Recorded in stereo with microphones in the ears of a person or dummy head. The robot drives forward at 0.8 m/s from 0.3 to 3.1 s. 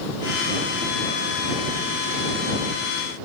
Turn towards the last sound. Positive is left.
No sound to turn to.